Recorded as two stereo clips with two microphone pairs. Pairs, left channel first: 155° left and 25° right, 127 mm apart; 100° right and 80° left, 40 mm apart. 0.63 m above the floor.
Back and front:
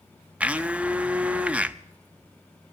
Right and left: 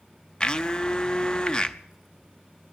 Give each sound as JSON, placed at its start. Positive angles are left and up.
{"t": 0.4, "sound": "a blender", "azimuth_deg": -90, "distance_m": 0.5}